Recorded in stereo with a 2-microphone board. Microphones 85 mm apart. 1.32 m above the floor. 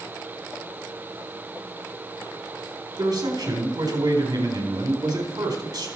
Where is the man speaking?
50° right (ahead or behind), 4 m.